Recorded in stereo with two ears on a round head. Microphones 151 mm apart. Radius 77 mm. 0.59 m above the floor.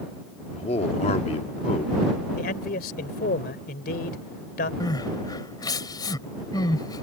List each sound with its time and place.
0.5 s a man speaking: 35° left (ahead or behind)
2.4 s a man speaking: 55° left (ahead or behind)
4.8 s crying: 25° left (ahead or behind)